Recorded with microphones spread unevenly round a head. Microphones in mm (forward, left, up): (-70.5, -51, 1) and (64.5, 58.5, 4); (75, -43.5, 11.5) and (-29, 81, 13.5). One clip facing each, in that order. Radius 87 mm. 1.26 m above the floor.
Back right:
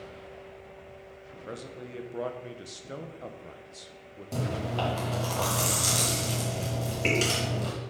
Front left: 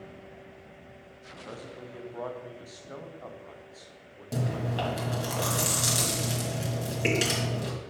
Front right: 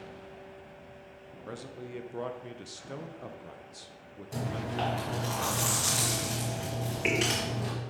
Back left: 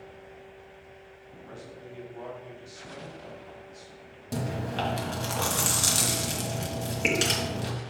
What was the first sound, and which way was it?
A man speaking, 85° right.